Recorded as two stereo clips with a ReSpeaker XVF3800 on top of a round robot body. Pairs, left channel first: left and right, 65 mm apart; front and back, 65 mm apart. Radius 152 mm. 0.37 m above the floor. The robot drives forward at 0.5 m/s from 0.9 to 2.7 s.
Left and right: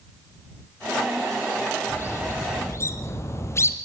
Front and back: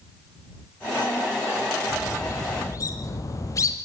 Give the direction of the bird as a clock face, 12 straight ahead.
11 o'clock.